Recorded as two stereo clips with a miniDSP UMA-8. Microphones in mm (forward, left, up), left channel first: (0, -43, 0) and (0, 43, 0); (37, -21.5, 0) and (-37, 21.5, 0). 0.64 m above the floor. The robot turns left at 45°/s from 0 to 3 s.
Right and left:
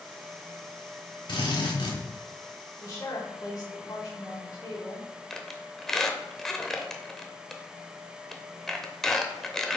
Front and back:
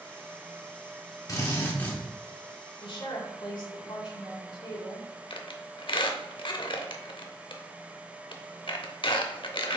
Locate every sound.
1.3 s a drill: 75° right, 1.6 m; by 2.0 s 105° right, 1.6 m
2.8 s a woman speaking: 35° right, 2 m; by 5.1 s 45° right, 2 m
5.3 s a squeak: 5° right, 0.8 m